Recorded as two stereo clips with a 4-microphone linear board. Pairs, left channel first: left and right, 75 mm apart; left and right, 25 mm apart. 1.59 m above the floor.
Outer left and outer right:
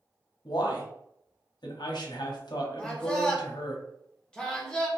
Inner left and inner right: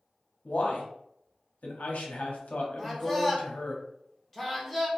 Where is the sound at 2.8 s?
15° left (ahead or behind), 0.7 m.